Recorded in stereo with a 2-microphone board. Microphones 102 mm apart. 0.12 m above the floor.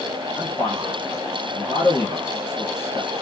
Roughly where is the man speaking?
Left.